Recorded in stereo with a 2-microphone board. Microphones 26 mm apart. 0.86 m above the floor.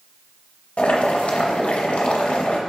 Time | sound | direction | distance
0.8 | boiling | 60° left (ahead or behind) | 0.7 m